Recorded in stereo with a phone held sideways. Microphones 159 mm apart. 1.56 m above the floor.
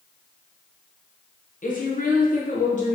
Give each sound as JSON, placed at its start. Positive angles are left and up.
{"t": 1.6, "sound": "a woman speaking", "side_deg": 55, "distance_m": 0.7}